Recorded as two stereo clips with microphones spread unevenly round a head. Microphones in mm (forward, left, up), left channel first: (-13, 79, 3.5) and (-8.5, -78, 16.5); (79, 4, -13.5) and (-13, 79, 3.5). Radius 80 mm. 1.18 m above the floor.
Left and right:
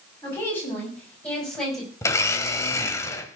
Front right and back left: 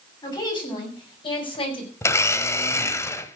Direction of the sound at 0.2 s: 15° left.